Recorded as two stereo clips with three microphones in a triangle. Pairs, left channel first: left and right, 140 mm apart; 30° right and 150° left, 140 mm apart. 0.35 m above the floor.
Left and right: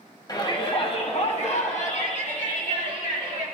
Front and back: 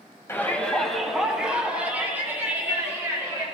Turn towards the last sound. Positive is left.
turn(degrees=85)